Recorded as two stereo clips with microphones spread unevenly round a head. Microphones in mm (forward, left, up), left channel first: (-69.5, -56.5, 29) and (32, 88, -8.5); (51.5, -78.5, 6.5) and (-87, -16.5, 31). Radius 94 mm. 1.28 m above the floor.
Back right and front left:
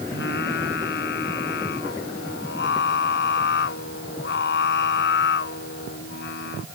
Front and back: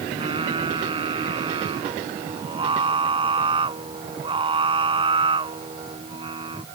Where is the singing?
150° right.